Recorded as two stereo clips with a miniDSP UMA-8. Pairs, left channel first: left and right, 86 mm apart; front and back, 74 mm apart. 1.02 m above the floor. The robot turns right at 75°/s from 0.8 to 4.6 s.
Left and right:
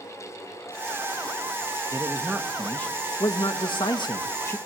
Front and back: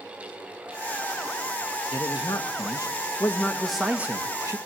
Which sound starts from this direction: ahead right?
A man speaking, at 1.9 s.